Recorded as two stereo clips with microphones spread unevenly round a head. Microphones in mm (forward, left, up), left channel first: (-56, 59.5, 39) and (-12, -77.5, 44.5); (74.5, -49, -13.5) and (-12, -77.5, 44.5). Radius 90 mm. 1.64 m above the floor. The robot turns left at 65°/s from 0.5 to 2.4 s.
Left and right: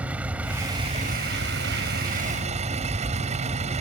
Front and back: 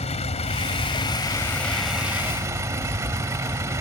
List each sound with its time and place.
0.0 s a vehicle: 10° left; by 3.8 s 115° right